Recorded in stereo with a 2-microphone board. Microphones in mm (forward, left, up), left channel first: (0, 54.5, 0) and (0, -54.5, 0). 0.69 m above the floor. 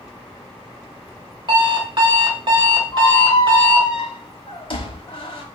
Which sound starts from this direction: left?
A squeak, at 2.9 s.